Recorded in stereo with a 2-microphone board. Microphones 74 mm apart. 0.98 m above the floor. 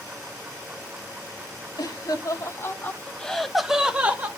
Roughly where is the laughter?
Left.